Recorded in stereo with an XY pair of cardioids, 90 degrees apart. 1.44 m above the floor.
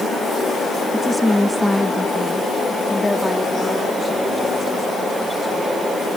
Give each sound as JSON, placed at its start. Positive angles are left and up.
{"t": 0.9, "sound": "a woman speaking", "azimuth_deg": 5}